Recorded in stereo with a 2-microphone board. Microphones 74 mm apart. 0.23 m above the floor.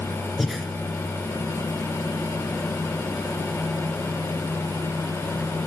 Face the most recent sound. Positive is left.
turn(degrees=0)  # may be behind; listen again after turning